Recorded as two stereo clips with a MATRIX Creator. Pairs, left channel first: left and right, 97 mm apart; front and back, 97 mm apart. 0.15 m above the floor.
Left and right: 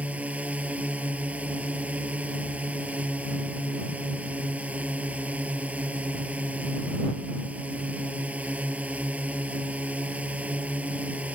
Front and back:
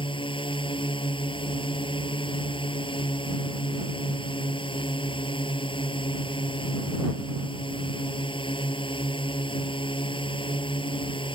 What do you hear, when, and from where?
0.0 s a drone: 15° right